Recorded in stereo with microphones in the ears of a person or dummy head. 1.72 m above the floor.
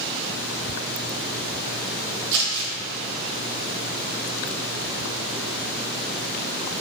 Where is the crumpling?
70° right (ahead or behind), 1.2 m.